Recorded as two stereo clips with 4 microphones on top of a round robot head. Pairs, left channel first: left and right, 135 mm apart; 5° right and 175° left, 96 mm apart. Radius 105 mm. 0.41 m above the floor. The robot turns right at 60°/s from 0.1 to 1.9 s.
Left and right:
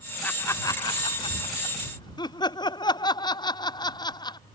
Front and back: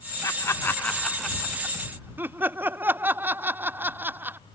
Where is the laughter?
15° left; by 4.4 s 115° left.